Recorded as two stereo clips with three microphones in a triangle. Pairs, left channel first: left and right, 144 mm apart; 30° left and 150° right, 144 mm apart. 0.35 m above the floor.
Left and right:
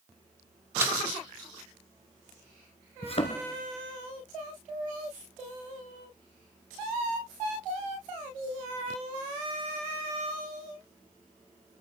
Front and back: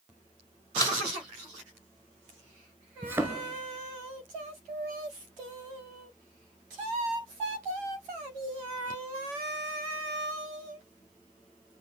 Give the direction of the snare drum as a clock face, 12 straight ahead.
1 o'clock.